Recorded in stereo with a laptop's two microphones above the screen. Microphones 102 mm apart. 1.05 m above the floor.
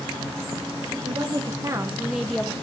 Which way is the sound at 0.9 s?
55° right (ahead or behind).